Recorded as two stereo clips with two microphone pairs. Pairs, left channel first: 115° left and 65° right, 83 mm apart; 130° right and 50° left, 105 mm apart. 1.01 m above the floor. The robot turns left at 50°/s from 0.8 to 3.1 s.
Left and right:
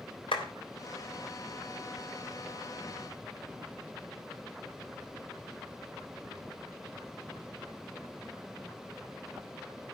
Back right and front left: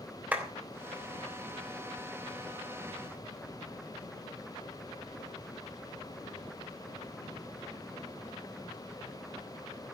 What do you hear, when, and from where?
0.3 s a clap: 125° left, 3 m